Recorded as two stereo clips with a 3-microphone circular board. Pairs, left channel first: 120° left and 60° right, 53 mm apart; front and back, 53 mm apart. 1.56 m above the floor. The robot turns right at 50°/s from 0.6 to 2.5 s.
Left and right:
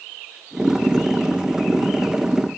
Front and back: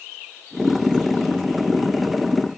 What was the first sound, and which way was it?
Only background noise.